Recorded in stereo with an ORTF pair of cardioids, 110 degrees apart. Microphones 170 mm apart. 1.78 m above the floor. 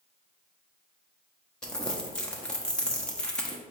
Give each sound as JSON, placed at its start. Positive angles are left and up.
{"t": 1.6, "sound": "crumpling", "azimuth_deg": 5, "distance_m": 0.6}